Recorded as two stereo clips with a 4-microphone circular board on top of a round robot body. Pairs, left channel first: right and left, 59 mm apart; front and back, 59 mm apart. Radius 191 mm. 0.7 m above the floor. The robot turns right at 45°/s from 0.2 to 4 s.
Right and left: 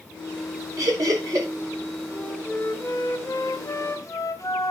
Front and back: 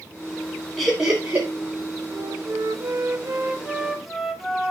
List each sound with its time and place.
0.8 s laughter: 90° left, 5 m; by 1.5 s 120° left, 5 m
2.1 s a flute: 175° right, 1.2 m; by 4.7 s 90° right, 1.2 m